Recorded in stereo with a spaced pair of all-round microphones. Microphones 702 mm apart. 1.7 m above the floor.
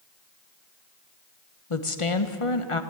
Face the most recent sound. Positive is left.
turn(degrees=45)  # may be behind; listen again after turning